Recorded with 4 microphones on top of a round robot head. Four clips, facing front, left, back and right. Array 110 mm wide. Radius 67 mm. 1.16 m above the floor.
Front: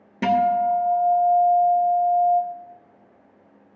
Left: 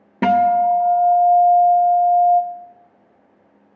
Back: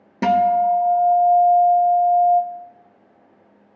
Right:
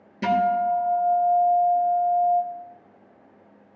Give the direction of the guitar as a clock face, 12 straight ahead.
8 o'clock.